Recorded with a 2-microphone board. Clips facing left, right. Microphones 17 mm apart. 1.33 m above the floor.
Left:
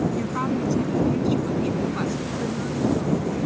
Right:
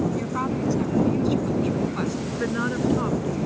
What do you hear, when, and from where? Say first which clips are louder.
0.2 s a woman speaking: left 1 dB; 10° right (ahead or behind); by 2.1 s 5° right (ahead or behind)
2.2 s a woman speaking: right 2 dB; 85° right